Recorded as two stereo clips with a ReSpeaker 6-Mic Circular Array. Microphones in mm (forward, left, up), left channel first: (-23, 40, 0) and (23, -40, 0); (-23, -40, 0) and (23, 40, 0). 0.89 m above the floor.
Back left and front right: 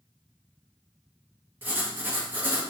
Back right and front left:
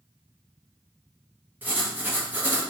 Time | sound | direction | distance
1.6 | writing | straight ahead | 0.8 m